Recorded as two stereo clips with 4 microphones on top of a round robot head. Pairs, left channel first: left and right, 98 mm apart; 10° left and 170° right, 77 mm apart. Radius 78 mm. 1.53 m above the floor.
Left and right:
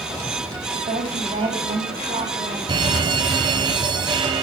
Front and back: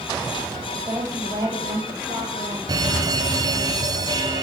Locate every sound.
0.7 s a woman speaking: 115° right, 8.5 m; by 2.6 s 120° right, 8 m
2.7 s an alarm: 130° right, 1.6 m